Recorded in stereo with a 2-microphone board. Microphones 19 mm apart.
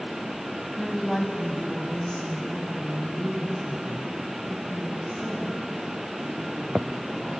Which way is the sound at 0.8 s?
5° left (ahead or behind).